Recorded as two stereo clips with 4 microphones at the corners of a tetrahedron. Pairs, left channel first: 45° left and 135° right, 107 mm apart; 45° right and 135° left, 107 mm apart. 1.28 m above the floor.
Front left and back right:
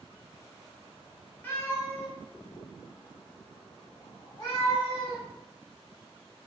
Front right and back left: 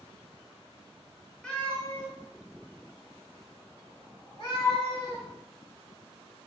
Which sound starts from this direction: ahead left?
A cat meowing, at 1.4 s.